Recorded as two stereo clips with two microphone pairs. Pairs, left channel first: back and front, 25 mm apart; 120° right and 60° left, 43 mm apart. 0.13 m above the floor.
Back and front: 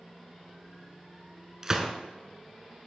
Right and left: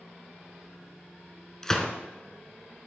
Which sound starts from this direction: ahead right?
A gunshot, at 1.6 s.